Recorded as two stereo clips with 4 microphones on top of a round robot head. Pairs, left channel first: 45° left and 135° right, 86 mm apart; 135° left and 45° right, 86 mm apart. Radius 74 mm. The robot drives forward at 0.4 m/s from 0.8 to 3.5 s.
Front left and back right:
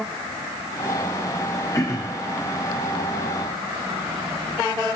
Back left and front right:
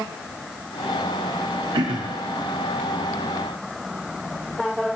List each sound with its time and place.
1.7 s throat clearing: 10° right, 0.7 m; by 2.2 s 15° right, 0.5 m